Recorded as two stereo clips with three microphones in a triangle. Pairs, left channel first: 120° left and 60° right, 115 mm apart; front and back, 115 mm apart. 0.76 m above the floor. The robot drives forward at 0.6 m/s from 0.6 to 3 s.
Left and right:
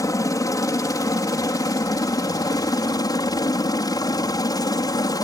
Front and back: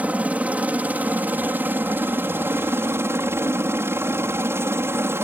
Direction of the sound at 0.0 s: 115° left.